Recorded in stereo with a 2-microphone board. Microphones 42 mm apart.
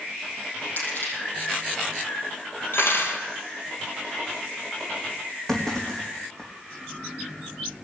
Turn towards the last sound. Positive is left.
turn(degrees=15)  # may be behind; listen again after turning